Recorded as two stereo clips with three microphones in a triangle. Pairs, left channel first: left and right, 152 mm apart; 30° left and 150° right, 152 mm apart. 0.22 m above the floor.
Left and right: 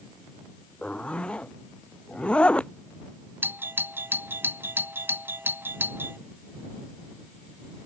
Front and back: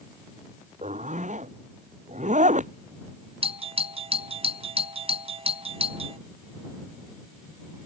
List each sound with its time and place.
0.8 s a zipper: 175° left
3.4 s a doorbell: 160° right